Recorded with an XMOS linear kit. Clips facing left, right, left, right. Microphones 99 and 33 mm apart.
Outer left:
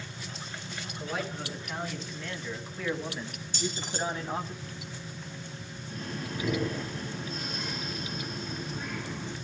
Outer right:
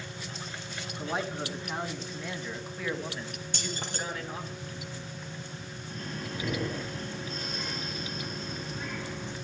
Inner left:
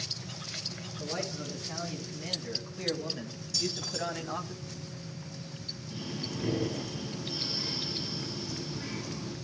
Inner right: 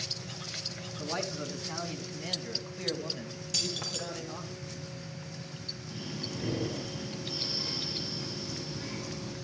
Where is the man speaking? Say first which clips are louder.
Outer right 2 dB, inner right 1 dB; 30° right (ahead or behind), 4.5 m; by 4.5 s 40° left (ahead or behind), 3 m.